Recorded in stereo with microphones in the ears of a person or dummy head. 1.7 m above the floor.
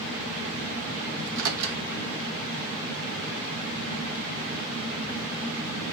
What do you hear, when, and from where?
1.2 s a microwave: 75° right (ahead or behind), 0.9 m